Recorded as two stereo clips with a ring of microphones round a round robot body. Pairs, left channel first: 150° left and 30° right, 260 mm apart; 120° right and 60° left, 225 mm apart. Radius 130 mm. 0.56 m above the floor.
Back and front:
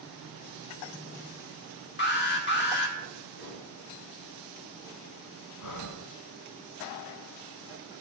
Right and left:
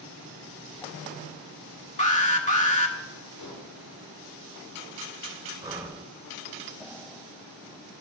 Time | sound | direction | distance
2.0 | an alarm | 170° right | 1.6 m
3.4 | dishes clattering | 110° right | 5.5 m
5.6 | breathing | 135° left | 1.3 m